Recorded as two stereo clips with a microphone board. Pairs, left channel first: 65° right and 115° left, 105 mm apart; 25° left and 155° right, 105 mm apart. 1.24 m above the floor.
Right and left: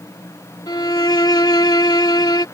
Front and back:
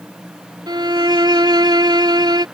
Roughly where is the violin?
Behind right.